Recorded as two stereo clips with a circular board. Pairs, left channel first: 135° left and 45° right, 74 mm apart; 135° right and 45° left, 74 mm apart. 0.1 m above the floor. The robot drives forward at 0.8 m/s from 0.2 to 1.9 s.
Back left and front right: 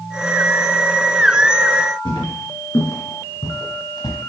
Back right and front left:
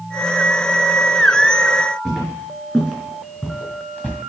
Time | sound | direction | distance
2.0 | footsteps | 145° left | 3.5 m